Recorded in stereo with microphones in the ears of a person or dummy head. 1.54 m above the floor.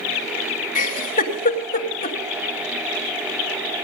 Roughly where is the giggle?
Left.